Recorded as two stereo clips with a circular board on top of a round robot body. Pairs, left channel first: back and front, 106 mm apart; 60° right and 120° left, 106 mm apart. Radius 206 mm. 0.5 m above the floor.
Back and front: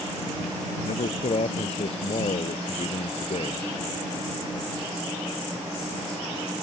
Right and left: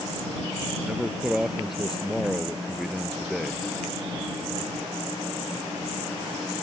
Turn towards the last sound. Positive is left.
turn(degrees=-155)